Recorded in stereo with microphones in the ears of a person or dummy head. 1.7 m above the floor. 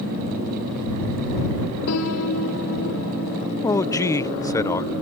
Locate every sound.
1.9 s a piano: 80° left
3.6 s a man speaking: 20° left (ahead or behind)